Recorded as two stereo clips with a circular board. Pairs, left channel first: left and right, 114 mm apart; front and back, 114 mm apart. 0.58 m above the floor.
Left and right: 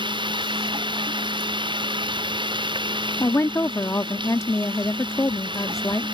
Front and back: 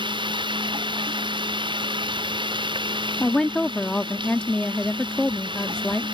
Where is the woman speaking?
70° left.